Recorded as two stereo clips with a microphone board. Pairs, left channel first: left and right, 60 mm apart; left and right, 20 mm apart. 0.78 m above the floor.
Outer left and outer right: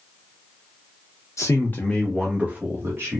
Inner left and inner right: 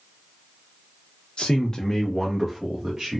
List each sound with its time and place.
1.4 s a man speaking: 50° left (ahead or behind), 0.7 m; by 3.2 s 45° right (ahead or behind), 1.2 m